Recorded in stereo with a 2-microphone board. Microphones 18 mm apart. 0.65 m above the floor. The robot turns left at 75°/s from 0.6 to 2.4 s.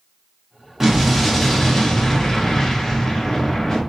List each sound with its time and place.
0.8 s an explosion: 135° right, 0.9 m; by 3.8 s 105° left, 0.9 m